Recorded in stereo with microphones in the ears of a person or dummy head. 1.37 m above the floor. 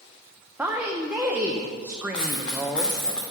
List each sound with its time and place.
0.6 s a woman speaking: 10° right (ahead or behind), 0.6 m
2.1 s a dropped coin: 10° left (ahead or behind), 0.6 m